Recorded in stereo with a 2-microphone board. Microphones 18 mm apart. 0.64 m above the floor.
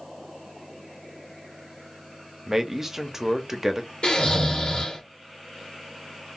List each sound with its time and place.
2.5 s a man speaking: 25° right (ahead or behind), 0.6 m
4.0 s snoring: 70° left (ahead or behind), 1.4 m